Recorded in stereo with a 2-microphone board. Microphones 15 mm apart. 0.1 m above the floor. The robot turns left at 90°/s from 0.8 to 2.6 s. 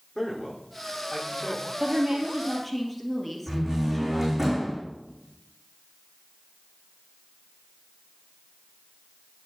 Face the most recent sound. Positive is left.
turn(degrees=-20)  # may be behind; listen again after turning